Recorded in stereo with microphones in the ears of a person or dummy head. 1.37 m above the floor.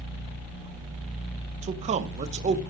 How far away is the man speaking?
About 0.6 m.